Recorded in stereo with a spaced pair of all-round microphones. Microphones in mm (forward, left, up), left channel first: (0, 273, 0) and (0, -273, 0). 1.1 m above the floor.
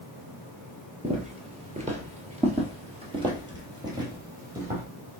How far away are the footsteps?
About 1.2 m.